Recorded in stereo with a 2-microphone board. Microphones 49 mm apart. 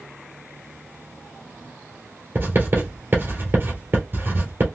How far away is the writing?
About 2.5 m.